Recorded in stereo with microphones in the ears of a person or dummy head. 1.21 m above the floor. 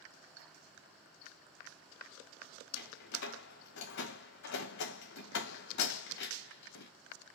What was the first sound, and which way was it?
A door slam, 60° left (ahead or behind).